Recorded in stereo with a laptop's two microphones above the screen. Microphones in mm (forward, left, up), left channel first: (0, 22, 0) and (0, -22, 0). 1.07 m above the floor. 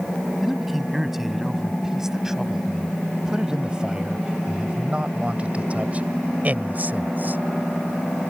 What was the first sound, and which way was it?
A man speaking, 5° right (ahead or behind).